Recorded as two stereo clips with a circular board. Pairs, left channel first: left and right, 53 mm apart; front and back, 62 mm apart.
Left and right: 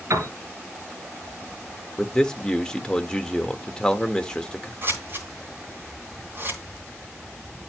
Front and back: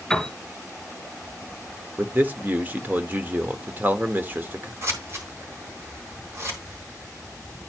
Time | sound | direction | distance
0.1 | a piano | 85° right | 2.5 m
2.0 | a man speaking | 150° left | 0.9 m
4.8 | scissors | 135° right | 3 m